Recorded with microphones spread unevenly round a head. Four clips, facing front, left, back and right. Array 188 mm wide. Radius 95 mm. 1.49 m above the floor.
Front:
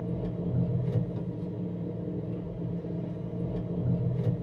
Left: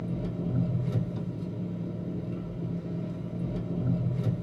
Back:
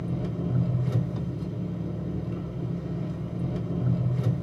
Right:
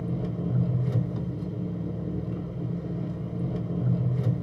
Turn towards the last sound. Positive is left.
turn(degrees=-160)